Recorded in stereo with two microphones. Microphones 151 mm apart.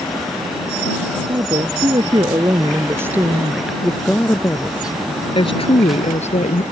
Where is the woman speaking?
40° right (ahead or behind); by 6.6 s 55° left (ahead or behind).